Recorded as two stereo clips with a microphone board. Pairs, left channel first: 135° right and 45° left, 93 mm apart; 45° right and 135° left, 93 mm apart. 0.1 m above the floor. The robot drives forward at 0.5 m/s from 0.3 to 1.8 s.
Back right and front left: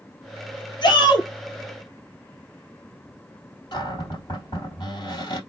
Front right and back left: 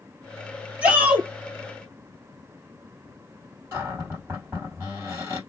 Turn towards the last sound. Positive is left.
turn(degrees=-165)